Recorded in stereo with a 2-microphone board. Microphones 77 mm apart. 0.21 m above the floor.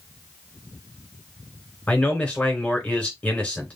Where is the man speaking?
15° left (ahead or behind), 2.5 m.